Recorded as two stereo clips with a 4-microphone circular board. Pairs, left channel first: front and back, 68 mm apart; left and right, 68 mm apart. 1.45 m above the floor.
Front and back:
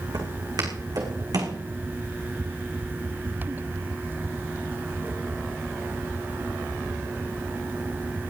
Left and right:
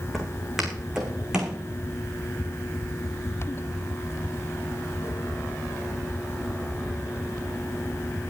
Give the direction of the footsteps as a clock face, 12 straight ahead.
6 o'clock.